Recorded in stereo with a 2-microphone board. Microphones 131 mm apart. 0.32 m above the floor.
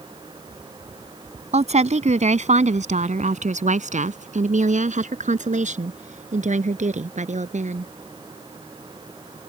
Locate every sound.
1.5 s a woman speaking: 60° right (ahead or behind); by 7.9 s 65° right (ahead or behind)